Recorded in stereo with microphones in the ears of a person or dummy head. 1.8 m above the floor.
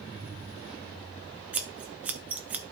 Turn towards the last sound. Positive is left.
turn(degrees=-5)  # may be behind; listen again after turning